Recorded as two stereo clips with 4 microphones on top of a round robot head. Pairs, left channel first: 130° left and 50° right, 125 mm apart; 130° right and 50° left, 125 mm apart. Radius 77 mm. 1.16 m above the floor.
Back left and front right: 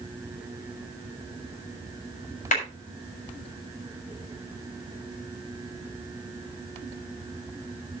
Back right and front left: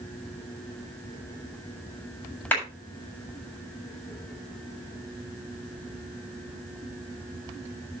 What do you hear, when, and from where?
2.5 s a clap: 155° left, 7 m